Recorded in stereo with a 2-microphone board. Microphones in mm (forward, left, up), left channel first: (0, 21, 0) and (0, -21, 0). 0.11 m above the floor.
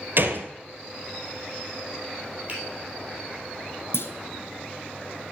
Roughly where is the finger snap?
Right.